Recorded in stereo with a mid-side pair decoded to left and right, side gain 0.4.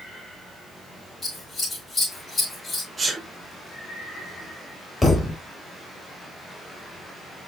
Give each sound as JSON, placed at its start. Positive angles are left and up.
{"t": 1.2, "sound": "scissors", "azimuth_deg": 25, "distance_m": 7.0}
{"t": 3.0, "sound": "a sneeze", "azimuth_deg": -30, "distance_m": 3.5}
{"t": 5.0, "sound": "a thud", "azimuth_deg": 30, "distance_m": 4.0}